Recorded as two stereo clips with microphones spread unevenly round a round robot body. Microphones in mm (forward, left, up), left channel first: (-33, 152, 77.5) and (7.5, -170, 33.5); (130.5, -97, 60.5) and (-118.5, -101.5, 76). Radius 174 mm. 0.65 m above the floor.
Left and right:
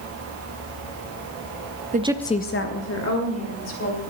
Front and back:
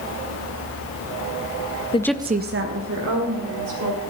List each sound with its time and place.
1.9 s a woman speaking: 50° right, 0.6 m; by 4.0 s 145° left, 2.5 m